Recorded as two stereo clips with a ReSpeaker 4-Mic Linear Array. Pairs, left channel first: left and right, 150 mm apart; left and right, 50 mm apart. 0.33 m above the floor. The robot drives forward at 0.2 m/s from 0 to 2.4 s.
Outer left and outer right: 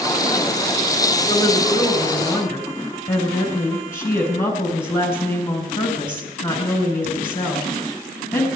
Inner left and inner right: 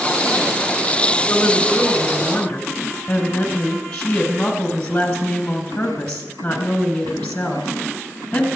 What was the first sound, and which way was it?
A woman speaking, 20° left (ahead or behind).